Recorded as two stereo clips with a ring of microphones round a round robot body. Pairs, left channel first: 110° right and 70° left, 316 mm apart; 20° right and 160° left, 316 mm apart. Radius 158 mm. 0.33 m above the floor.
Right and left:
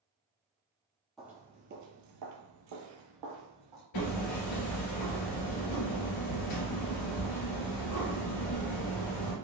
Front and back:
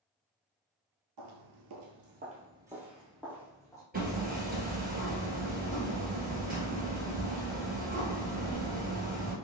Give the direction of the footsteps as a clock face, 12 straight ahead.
7 o'clock.